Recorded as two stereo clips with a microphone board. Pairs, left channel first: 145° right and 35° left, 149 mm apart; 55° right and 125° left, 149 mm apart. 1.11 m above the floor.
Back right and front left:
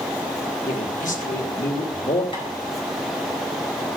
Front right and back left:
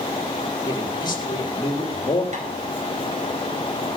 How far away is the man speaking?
About 2.5 m.